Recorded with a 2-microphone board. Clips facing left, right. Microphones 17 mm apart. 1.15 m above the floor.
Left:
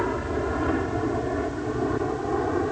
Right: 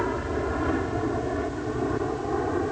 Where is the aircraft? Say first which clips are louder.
Left 1 dB; 5° left (ahead or behind).